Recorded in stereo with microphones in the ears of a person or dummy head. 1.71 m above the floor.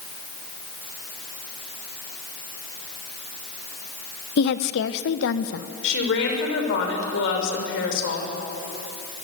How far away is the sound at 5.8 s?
About 6.5 m.